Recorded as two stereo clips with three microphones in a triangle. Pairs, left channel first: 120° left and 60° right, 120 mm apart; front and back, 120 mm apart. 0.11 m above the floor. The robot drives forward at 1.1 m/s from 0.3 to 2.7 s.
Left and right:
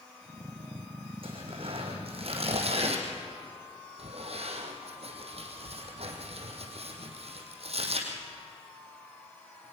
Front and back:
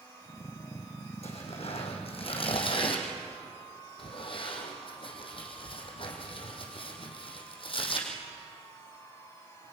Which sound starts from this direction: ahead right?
Tearing paper, at 1.2 s.